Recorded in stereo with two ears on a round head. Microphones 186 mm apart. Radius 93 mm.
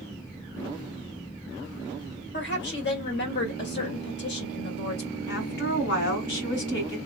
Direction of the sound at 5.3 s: 60° left (ahead or behind).